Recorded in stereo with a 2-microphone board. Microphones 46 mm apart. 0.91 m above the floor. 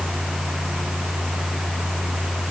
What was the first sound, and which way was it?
Only background noise.